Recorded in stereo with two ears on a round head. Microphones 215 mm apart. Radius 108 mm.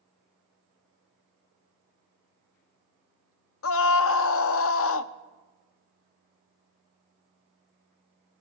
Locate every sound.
3.6 s a scream: 55° left (ahead or behind), 0.6 m